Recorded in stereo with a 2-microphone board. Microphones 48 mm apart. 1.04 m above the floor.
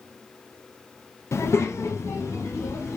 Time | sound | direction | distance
1.3 | a child speaking | 70° left (ahead or behind) | 0.6 m